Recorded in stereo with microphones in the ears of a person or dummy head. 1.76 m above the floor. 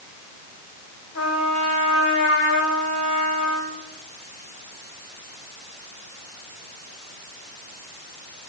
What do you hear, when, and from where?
1.1 s a trumpet: 85° left, 4.5 m